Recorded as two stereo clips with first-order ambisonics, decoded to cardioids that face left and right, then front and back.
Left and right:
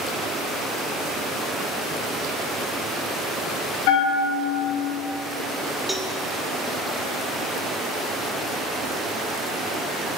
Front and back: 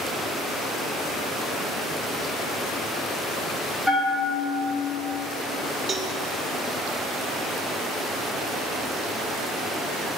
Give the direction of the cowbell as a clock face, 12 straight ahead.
6 o'clock.